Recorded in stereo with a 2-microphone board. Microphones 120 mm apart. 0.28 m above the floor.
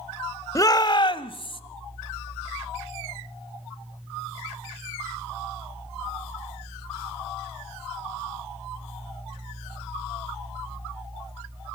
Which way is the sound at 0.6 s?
25° left (ahead or behind).